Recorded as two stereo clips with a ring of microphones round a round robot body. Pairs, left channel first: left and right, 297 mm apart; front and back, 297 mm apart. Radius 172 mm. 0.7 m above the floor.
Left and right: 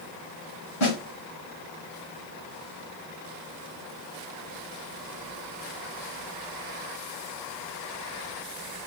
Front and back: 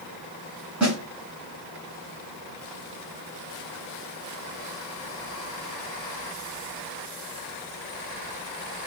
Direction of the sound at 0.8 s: 95° left.